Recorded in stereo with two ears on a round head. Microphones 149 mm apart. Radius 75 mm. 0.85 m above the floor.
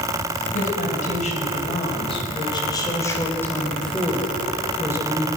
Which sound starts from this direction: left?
A woman speaking, at 0.5 s.